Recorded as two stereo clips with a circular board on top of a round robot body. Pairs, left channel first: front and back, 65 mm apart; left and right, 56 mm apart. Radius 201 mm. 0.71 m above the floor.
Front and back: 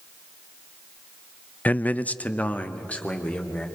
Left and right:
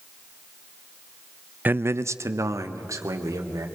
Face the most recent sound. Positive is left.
turn(degrees=-70)